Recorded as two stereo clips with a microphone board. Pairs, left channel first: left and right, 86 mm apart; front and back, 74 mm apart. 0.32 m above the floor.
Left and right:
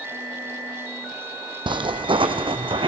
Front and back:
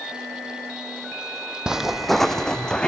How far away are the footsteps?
About 0.8 m.